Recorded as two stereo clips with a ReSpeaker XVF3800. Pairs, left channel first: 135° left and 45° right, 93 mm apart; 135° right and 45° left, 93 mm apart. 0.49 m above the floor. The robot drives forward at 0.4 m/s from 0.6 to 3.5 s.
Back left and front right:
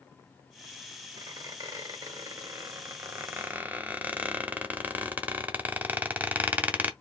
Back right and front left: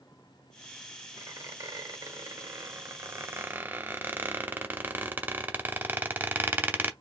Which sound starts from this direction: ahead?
A squeak, at 1.2 s.